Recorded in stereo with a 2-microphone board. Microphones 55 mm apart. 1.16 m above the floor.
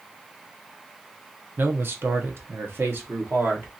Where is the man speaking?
40° right (ahead or behind), 0.6 m.